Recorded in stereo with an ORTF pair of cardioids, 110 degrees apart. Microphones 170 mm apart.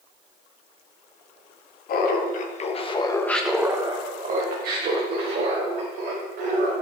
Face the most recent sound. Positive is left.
turn(degrees=-75)